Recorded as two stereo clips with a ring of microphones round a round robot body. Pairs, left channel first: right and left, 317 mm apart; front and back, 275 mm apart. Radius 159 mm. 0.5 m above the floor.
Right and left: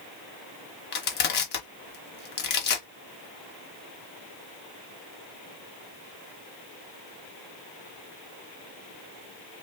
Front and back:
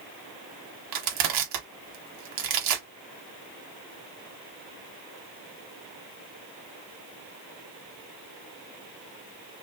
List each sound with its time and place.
0.9 s crushing: 150° right, 1.2 m